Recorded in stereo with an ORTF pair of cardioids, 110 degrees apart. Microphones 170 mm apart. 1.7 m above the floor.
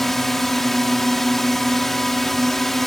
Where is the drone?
Straight ahead.